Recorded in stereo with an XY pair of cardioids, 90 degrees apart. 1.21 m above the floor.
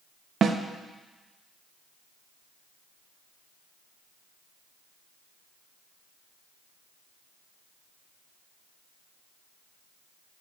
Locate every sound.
0.4 s a snare drum: 55° right, 0.9 m